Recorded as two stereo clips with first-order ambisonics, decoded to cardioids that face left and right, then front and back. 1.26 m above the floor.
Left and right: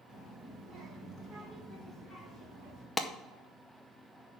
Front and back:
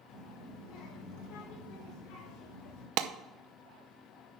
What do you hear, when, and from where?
0.1 s a child speaking: 30° right, 2.5 m; by 2.9 s 15° left, 3.5 m
3.0 s a clap: 170° left, 0.7 m